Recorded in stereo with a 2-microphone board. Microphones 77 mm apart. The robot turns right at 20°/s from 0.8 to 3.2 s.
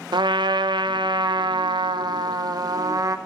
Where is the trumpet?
95° right, 0.8 m; by 3.2 s 50° right, 0.8 m.